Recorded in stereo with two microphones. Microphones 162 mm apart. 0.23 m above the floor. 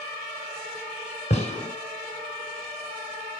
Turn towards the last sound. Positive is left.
turn(degrees=40)  # may be behind; listen again after turning